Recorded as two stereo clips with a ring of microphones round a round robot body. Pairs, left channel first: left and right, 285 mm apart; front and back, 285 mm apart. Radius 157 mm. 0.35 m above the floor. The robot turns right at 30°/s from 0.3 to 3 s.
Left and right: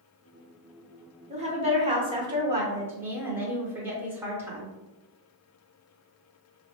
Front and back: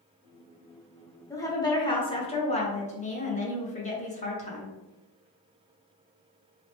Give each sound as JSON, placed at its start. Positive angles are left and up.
{"t": 1.3, "sound": "a woman speaking", "azimuth_deg": -70, "distance_m": 0.8}